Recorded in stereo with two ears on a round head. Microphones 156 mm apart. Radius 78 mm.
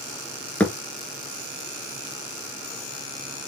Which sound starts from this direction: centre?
A thud, at 0.6 s.